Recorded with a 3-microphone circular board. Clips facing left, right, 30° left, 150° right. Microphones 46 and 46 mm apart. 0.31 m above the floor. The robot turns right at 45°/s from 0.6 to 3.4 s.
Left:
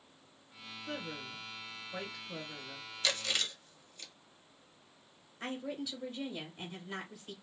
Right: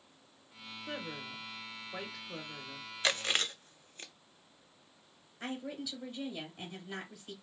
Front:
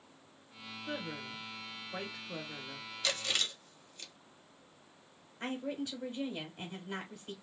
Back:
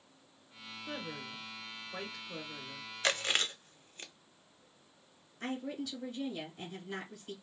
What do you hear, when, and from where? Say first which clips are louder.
0.9 s a woman speaking: even, front 2 dB; 75° right, 0.9 m; by 2.9 s 20° left, 0.9 m
3.0 s chewing: right 3 dB, back 3 dB; 135° right, 0.5 m; by 4.1 s 120° right, 0.5 m
5.4 s a woman speaking: left 1 dB, front 1 dB; 5° left, 1.1 m